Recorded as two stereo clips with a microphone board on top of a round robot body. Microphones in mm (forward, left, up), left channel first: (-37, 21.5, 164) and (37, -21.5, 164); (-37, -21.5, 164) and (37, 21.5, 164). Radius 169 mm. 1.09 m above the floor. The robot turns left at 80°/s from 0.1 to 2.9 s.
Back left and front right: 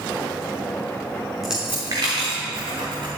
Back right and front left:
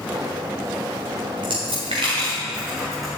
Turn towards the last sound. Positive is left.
turn(degrees=-60)